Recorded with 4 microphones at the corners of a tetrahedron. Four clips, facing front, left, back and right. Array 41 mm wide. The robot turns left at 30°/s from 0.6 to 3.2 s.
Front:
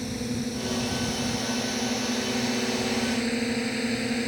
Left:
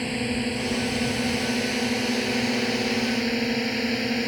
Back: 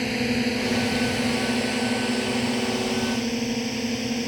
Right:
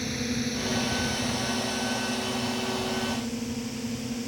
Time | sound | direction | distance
0.0 | a drone | 155° left | ?